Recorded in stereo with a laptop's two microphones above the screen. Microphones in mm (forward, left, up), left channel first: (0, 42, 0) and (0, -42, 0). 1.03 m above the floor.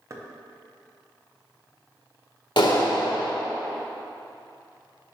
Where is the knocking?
35° right (ahead or behind), 0.6 m.